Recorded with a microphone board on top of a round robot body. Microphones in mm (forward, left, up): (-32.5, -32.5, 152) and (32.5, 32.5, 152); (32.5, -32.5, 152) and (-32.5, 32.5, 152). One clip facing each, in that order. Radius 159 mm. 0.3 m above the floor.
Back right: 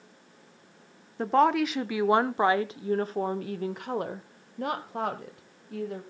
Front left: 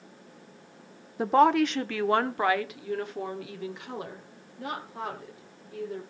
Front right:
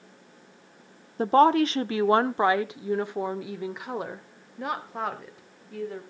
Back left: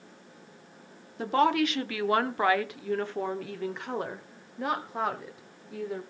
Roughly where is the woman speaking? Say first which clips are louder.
Front left 2 dB, front right 5 dB; ahead right.